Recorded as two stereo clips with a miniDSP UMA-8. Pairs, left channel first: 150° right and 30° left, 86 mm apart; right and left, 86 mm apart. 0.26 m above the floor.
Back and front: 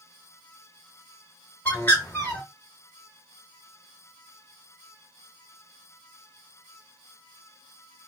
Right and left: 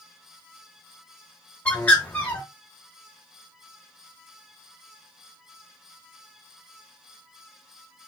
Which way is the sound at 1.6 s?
135° right.